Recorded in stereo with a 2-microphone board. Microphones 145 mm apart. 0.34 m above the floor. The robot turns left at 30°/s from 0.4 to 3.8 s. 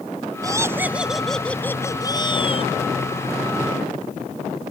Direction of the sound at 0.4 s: 155° right.